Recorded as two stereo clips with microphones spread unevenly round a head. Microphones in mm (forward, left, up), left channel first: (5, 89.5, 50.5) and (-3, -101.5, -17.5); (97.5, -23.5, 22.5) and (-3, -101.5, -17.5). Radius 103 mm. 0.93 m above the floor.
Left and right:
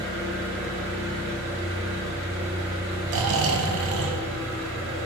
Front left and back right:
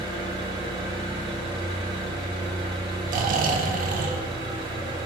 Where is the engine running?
85° right, 1.5 m.